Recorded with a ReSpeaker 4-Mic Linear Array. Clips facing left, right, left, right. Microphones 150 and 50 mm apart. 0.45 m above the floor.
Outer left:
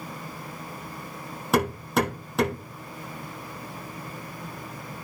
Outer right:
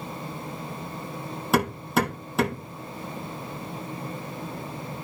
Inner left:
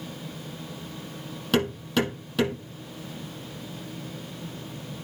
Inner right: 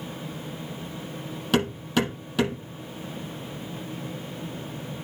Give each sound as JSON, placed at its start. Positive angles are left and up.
{"t": 1.5, "sound": "hammering", "side_deg": 0, "distance_m": 6.0}